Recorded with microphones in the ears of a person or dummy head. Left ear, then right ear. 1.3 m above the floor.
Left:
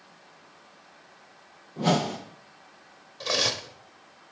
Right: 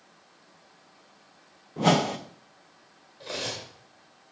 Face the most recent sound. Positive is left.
turn(degrees=50)  # may be behind; listen again after turning